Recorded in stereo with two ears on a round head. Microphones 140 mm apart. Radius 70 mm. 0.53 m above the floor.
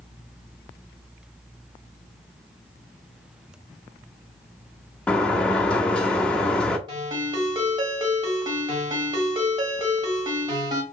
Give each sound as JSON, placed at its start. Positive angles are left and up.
{"t": 5.1, "sound": "a sliding door", "side_deg": 5, "distance_m": 0.6}
{"t": 6.9, "sound": "a ringtone", "side_deg": -30, "distance_m": 1.4}